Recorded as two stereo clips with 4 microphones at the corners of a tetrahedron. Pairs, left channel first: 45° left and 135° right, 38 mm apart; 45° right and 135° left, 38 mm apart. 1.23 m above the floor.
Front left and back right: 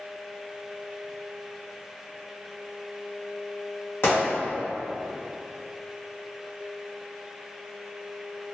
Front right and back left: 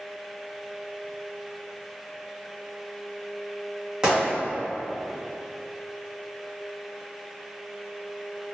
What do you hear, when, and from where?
4.0 s a gunshot: 65° left, 1.4 m